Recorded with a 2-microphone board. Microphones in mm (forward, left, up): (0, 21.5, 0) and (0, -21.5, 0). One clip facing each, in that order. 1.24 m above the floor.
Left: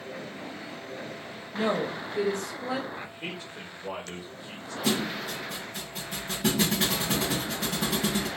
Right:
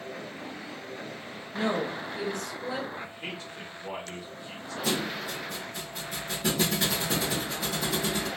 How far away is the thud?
About 2.5 m.